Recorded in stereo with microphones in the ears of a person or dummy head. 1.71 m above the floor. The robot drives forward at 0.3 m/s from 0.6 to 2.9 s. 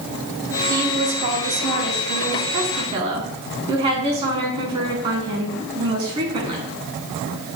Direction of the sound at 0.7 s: 40° right (ahead or behind).